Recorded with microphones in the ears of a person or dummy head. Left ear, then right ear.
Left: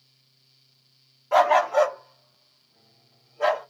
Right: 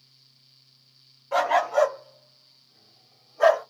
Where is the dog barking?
15° left (ahead or behind), 1.2 m; by 3.6 s 50° right (ahead or behind), 1.7 m.